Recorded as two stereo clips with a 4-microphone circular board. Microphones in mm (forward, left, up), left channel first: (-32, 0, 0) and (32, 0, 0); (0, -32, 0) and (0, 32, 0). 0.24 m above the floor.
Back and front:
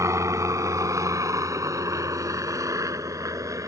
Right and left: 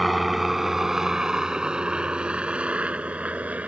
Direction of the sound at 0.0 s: Straight ahead.